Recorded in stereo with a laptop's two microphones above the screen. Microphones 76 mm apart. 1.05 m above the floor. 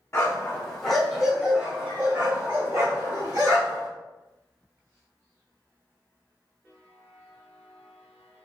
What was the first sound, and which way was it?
A dog barking, 30° left (ahead or behind).